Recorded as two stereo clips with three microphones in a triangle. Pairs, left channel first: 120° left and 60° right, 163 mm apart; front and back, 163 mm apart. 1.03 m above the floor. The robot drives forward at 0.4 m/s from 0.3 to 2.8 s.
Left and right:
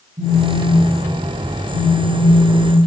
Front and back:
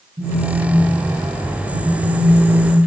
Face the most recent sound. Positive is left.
turn(degrees=-140)